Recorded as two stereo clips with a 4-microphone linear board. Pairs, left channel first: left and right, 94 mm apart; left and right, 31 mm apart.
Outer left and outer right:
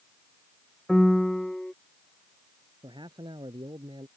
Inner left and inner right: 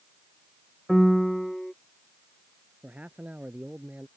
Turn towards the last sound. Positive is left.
turn(degrees=-55)  # may be behind; listen again after turning